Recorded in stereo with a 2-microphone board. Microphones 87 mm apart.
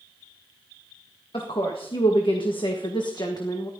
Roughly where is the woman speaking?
Left.